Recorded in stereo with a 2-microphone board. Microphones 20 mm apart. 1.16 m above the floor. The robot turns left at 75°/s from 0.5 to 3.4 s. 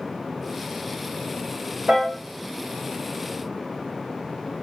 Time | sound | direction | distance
1.9 | a piano | 60° right (ahead or behind) | 1.0 m